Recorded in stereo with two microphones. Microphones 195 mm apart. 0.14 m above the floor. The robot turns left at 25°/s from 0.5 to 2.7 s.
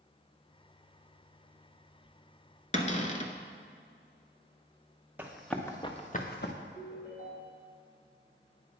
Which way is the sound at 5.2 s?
10° right (ahead or behind).